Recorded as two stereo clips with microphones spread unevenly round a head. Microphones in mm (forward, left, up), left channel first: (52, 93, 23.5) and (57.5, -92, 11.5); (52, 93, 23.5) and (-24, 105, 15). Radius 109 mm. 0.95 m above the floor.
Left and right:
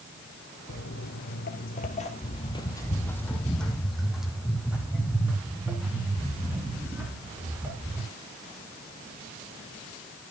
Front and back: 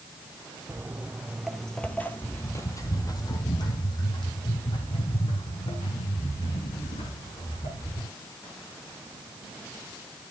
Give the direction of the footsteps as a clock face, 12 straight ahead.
8 o'clock.